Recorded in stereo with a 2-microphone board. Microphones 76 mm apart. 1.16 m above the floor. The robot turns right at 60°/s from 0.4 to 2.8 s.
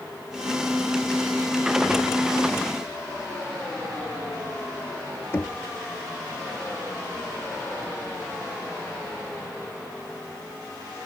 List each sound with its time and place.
5.3 s knocking: 30° left (ahead or behind)